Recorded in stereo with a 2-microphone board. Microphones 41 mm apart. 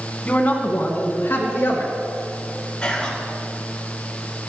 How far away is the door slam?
No door slam in this recording.